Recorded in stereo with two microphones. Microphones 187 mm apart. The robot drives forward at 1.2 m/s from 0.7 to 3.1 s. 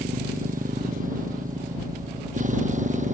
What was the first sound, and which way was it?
A motorcycle, 45° right (ahead or behind).